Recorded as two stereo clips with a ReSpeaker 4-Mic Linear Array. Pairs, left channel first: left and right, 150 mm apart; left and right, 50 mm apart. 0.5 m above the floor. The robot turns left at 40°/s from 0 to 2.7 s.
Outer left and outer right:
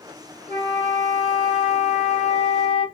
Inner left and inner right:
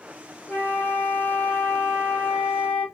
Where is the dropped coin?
No dropped coin in this recording.